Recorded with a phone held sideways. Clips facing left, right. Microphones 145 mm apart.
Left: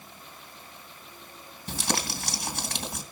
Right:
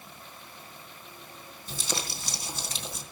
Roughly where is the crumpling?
Left.